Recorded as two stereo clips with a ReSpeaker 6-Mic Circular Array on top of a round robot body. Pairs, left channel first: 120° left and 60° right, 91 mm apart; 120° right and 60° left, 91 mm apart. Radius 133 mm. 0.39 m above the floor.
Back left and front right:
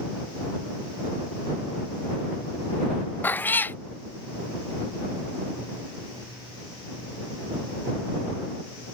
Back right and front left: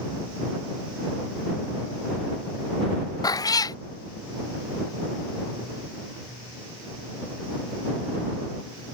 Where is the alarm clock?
No alarm clock in this recording.